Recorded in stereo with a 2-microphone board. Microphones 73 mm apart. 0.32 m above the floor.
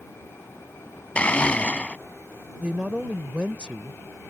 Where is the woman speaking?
15° right (ahead or behind).